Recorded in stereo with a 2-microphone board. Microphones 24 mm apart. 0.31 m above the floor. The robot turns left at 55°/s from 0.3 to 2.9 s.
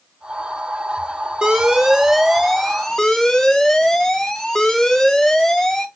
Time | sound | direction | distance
1.4 | an alarm | 130° right | 0.6 m